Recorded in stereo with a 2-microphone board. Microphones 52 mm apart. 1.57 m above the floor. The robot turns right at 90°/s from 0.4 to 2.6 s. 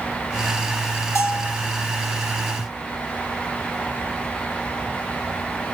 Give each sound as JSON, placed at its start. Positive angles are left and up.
{"t": 1.1, "sound": "a bell", "azimuth_deg": 75, "distance_m": 2.5}